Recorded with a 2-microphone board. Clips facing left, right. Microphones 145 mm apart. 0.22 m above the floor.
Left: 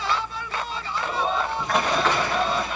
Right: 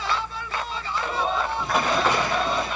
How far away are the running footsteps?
About 5 m.